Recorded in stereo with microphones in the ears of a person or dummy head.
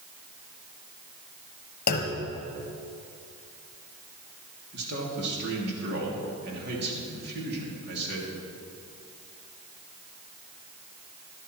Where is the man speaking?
65° right (ahead or behind), 2.5 m.